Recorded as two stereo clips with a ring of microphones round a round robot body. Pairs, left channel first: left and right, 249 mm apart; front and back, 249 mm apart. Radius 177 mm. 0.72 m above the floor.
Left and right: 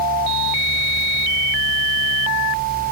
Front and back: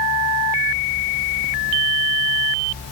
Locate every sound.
Only background noise.